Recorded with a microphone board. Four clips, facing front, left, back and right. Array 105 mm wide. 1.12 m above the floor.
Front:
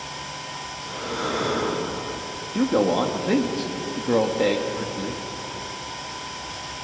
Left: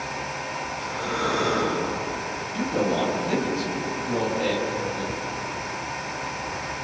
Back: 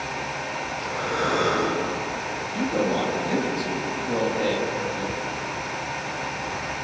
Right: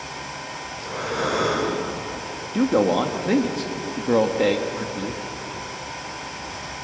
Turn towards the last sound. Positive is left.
turn(degrees=-60)